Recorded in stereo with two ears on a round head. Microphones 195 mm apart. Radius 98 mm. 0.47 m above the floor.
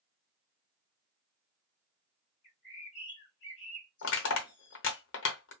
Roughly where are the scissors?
I don't hear scissors.